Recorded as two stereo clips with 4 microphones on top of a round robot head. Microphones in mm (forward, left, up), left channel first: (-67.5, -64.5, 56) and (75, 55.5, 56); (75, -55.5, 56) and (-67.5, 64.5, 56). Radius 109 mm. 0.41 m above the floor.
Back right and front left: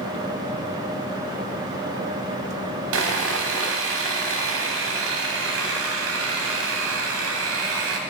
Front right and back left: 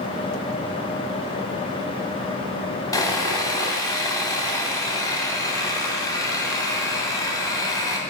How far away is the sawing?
About 0.9 m.